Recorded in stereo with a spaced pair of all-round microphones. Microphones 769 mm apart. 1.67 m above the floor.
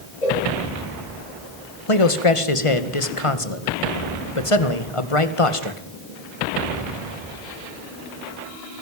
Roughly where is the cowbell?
Left.